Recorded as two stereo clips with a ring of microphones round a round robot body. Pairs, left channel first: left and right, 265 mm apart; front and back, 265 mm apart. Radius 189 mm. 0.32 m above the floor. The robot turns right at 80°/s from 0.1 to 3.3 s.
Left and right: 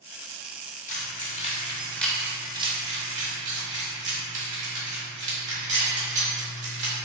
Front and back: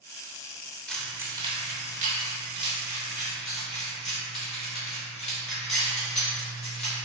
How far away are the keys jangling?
About 0.7 m.